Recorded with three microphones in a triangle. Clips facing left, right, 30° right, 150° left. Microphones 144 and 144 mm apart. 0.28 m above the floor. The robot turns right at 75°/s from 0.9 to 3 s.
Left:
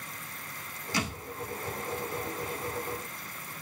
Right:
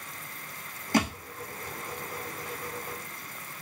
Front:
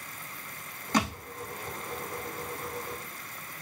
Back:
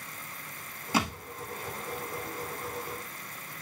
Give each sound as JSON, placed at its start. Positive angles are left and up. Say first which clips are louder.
{"t": 0.9, "sound": "a thud", "louder": "right 8 dB, front 1 dB", "azimuth_deg": -130, "distance_m": 1.7}